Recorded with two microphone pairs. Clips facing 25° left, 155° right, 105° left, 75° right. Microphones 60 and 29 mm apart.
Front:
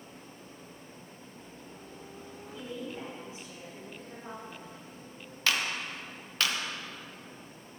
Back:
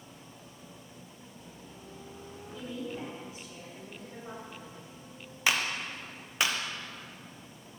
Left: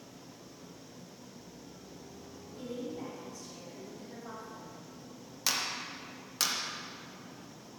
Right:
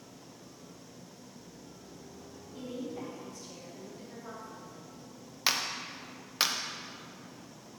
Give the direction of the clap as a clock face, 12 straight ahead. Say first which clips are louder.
Back 1 dB, right 2 dB; 4 o'clock.